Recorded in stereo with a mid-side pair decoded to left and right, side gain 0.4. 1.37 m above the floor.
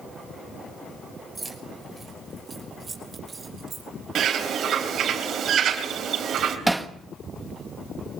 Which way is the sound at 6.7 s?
15° right.